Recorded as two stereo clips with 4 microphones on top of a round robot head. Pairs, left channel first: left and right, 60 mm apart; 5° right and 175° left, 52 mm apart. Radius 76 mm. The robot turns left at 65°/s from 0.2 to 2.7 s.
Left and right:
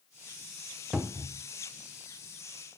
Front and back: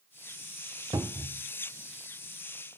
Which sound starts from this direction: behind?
A cupboard door, at 0.9 s.